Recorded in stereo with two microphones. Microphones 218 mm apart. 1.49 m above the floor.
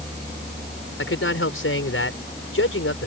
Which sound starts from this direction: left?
A man speaking, at 1.0 s.